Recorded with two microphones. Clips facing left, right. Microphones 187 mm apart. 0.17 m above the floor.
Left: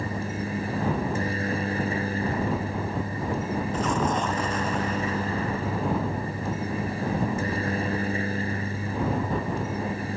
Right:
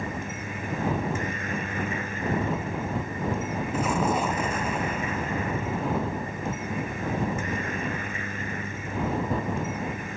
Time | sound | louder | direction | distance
0.0 | a helicopter | left 3 dB | 35° left (ahead or behind) | ?
3.7 | an explosion | right 2 dB | 10° right (ahead or behind) | ?